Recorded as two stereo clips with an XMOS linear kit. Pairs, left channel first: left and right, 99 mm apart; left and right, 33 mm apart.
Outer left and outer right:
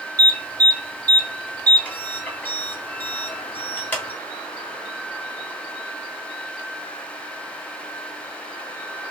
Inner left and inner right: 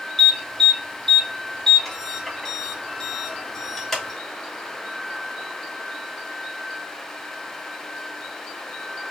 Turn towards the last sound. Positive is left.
turn(degrees=20)  # may be behind; listen again after turning